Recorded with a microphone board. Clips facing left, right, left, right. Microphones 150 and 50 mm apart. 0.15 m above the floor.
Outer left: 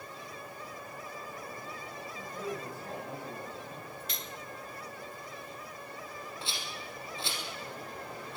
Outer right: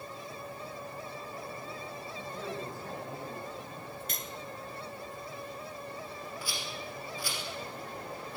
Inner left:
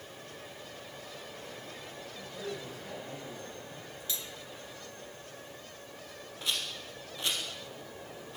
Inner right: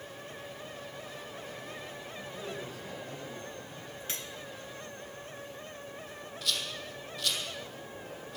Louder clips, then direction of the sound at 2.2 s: Outer left 1 dB, inner left 1 dB; centre (ahead or behind).